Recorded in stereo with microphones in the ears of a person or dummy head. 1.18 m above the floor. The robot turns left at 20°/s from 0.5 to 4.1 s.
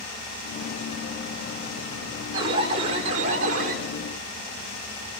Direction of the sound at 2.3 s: 30° right (ahead or behind).